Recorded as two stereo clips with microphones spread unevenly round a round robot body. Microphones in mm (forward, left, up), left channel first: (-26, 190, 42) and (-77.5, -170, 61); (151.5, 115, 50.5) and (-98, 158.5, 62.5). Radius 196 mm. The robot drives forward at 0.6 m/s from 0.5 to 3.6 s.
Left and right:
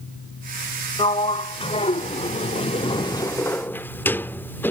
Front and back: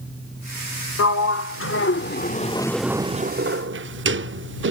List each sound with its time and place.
1.0 s a sliding door: 5° left; by 4.7 s 160° left